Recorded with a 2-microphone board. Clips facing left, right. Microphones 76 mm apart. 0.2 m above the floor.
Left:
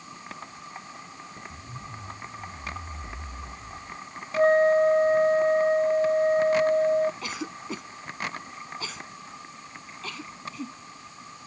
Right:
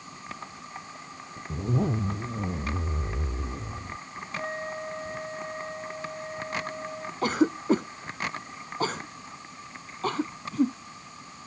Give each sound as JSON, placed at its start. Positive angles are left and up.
{"t": 1.5, "sound": "a zipper", "side_deg": -80}
{"t": 4.3, "sound": "a flute", "side_deg": 60}
{"t": 7.2, "sound": "a cough", "side_deg": -45}